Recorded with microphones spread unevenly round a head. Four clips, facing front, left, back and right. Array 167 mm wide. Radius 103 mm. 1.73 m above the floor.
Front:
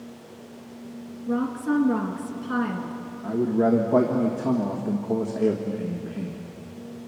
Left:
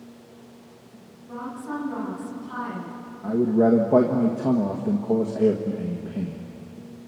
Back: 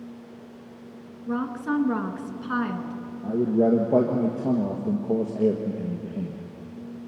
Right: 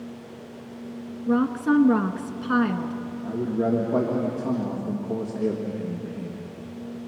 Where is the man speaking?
135° left, 1.6 m.